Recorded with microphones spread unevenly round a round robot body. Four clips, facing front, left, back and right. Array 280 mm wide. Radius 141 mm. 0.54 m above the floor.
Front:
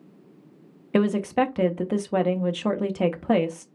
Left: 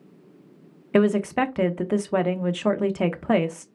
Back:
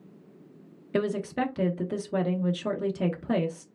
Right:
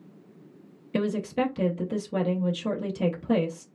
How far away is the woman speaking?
About 0.9 m.